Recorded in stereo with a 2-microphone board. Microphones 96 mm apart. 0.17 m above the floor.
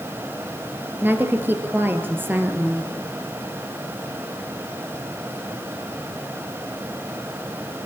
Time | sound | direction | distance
1.0 | a woman speaking | 20° right (ahead or behind) | 3 m